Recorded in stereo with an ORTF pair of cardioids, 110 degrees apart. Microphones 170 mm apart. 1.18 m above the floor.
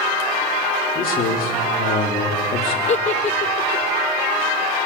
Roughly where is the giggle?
Ahead left.